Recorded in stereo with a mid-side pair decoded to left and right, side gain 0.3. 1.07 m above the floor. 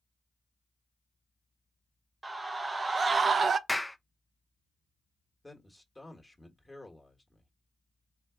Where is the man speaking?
15° left, 1.4 m.